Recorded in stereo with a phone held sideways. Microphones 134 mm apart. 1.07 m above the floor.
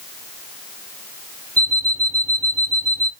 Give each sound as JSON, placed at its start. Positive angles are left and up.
{"t": 1.6, "sound": "an alarm clock", "side_deg": 55, "distance_m": 1.6}